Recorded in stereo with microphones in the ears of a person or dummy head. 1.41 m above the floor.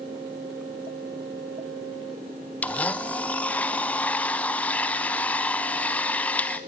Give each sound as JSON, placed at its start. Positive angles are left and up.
{"t": 2.6, "sound": "a blender", "side_deg": 5, "distance_m": 1.1}